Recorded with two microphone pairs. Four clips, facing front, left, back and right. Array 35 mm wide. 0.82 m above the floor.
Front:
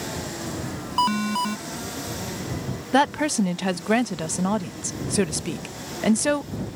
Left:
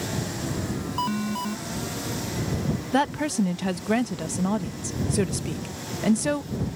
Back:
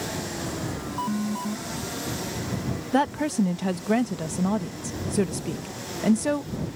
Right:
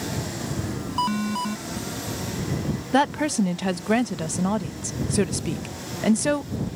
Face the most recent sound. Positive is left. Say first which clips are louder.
# right 3 dB, front 3 dB
turn(degrees=-10)